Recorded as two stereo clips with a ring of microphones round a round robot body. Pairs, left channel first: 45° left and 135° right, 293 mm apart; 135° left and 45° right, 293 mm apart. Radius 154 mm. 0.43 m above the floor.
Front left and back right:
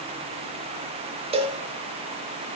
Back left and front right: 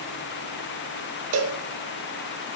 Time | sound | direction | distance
1.3 | a cowbell | 70° right | 0.6 m